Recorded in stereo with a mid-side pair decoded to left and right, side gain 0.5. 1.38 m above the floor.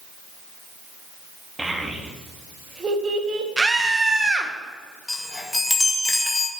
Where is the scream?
15° right, 1.3 m.